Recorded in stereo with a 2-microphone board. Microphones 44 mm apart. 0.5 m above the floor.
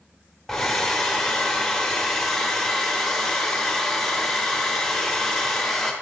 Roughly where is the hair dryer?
Centre.